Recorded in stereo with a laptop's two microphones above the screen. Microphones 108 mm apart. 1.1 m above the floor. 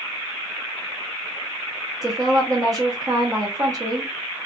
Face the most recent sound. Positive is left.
turn(degrees=-35)  # may be behind; listen again after turning